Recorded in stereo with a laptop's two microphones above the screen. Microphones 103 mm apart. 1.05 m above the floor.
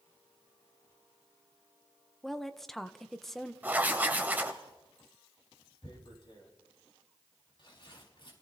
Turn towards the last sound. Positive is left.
turn(degrees=55)  # may be behind; listen again after turning